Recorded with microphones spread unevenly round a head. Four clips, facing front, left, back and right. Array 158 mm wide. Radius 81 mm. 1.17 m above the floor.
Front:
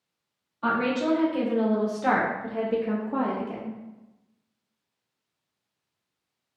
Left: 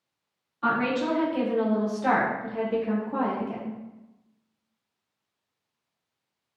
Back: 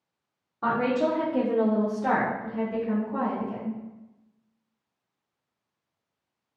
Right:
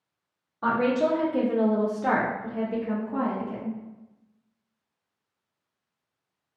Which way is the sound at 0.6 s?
135° right.